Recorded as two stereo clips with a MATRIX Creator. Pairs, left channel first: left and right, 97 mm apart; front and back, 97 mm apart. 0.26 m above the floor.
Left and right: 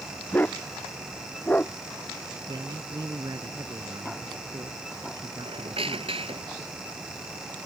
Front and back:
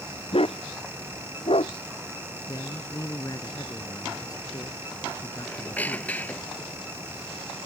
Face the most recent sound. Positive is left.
turn(degrees=-75)